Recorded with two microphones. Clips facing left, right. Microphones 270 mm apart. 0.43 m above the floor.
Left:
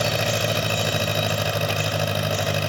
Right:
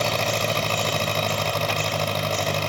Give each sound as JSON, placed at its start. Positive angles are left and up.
{"t": 0.0, "sound": "an engine running", "side_deg": 10}